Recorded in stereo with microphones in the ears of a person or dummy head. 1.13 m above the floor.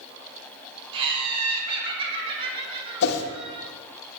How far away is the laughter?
About 0.7 m.